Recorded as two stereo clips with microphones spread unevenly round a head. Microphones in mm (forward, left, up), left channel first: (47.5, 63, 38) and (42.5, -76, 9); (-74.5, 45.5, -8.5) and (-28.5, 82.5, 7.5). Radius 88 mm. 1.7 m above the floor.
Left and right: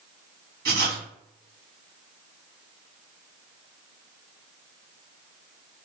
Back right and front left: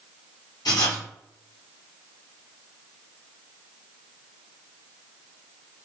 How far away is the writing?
About 1.2 m.